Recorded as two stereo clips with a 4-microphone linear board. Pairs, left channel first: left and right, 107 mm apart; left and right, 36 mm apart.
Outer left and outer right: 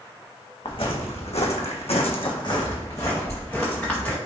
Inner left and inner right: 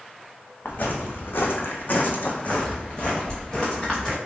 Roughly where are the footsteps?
Left.